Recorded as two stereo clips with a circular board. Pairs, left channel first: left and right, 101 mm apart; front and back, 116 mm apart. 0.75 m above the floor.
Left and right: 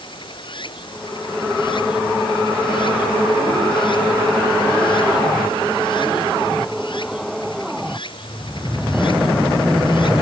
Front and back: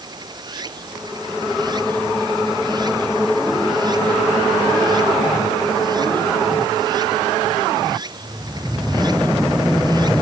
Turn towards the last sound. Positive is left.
turn(degrees=125)